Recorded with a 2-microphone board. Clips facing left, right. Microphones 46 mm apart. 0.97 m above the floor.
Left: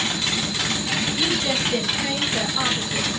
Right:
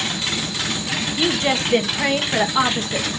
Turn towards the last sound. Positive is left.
turn(degrees=-60)  # may be behind; listen again after turning